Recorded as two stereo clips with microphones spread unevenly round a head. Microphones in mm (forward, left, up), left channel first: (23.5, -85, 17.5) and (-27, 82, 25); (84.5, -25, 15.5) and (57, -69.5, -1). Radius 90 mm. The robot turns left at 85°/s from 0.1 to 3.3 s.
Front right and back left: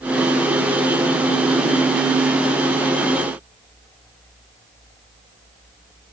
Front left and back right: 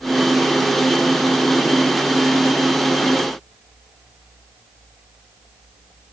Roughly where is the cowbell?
No cowbell in this recording.